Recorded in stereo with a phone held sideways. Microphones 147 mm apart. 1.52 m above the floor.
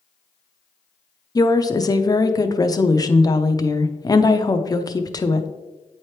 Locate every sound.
1.4 s a woman speaking: 25° left (ahead or behind), 0.6 m